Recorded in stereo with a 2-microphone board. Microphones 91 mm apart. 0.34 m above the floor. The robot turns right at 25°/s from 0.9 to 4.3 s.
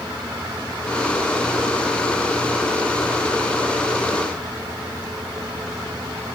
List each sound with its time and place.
Only background noise.